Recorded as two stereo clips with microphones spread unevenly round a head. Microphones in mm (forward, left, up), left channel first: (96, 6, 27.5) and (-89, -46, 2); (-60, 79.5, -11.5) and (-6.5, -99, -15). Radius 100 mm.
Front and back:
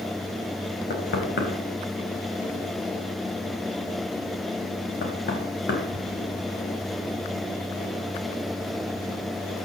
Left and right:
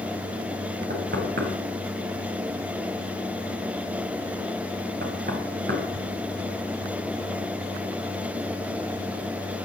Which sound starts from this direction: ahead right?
Knocking, at 0.9 s.